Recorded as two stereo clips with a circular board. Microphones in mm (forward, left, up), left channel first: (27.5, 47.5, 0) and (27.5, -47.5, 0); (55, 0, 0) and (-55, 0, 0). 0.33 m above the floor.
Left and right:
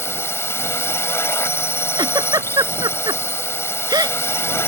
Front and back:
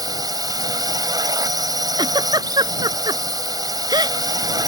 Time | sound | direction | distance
0.0 | a drone | 140° left | ?
2.0 | a giggle | 135° right | ?